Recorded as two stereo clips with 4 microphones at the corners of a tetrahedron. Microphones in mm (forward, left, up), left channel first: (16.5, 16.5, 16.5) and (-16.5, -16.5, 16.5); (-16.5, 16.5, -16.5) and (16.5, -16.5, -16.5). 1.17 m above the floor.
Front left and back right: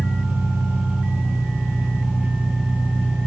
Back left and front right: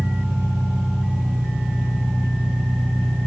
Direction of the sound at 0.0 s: 90° right.